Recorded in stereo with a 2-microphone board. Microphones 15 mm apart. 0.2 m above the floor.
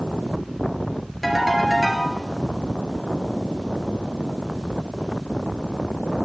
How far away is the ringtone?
About 3 m.